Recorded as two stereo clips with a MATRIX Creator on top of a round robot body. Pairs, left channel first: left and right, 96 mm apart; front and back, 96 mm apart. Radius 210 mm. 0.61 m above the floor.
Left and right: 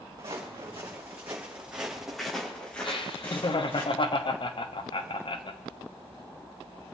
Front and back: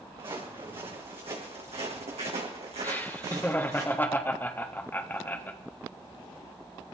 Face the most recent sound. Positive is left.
turn(degrees=70)